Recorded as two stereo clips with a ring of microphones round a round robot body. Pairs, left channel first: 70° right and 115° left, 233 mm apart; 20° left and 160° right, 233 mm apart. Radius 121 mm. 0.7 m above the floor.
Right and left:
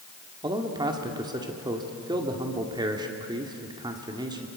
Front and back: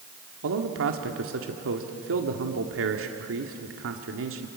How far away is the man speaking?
About 2 m.